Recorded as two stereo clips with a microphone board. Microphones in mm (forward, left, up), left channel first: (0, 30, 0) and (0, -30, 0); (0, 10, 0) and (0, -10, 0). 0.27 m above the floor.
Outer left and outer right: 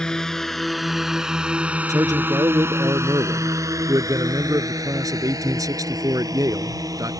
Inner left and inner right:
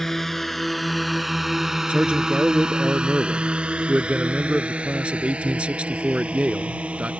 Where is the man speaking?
70° right (ahead or behind).